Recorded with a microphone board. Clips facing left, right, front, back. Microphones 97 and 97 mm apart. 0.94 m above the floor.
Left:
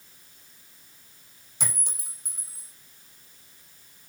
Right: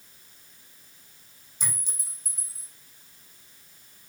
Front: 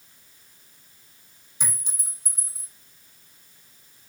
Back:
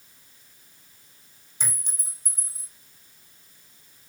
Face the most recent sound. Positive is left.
turn(degrees=85)